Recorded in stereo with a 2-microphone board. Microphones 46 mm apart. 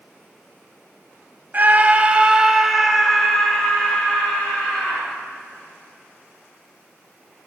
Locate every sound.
1.5 s a scream: 40° right (ahead or behind), 1.5 m; by 5.0 s 30° left (ahead or behind), 3 m